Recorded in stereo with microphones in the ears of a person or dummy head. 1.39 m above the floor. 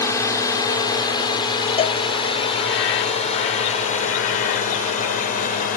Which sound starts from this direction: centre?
A drone, at 0.0 s.